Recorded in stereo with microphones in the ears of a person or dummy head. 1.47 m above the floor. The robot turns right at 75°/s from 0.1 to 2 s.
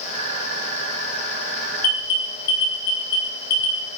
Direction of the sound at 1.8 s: 50° left (ahead or behind).